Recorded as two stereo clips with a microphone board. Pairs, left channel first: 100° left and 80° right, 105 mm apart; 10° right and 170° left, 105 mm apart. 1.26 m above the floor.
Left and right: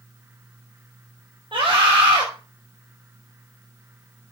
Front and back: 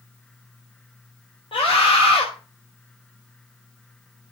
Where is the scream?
45° right, 5 m.